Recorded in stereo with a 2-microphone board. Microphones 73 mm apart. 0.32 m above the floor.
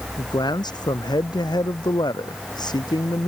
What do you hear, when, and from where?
0.2 s a man speaking: 75° left (ahead or behind)